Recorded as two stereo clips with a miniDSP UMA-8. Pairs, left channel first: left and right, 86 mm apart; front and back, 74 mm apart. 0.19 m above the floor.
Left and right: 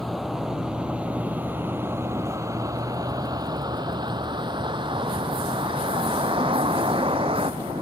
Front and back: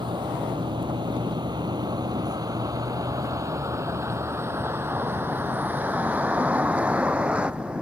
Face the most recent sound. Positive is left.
turn(degrees=-105)